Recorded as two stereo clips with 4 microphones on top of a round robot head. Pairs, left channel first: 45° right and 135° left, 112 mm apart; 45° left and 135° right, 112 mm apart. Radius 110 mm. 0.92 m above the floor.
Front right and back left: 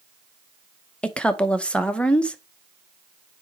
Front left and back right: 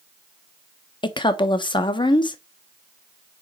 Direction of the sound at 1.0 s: 35° left.